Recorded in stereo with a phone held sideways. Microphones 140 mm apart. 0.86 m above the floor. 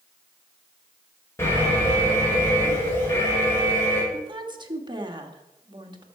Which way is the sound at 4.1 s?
35° right (ahead or behind).